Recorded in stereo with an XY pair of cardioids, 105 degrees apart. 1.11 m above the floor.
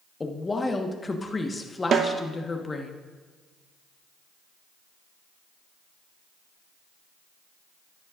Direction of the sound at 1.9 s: 55° right.